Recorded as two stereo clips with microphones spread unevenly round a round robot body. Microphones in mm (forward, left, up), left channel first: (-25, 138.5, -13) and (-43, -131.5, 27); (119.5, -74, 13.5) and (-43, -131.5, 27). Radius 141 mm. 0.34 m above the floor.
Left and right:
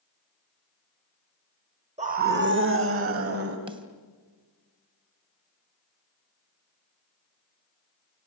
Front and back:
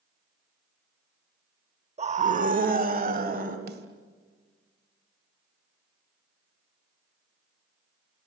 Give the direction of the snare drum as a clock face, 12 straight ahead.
6 o'clock.